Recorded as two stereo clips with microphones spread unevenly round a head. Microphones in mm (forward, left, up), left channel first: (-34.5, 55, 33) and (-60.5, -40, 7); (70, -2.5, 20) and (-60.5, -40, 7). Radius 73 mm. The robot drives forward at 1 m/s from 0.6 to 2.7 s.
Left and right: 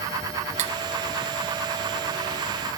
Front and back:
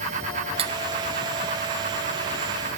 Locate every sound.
0.6 s cutlery clinking: 115° right, 0.6 m; by 0.7 s 125° right, 0.7 m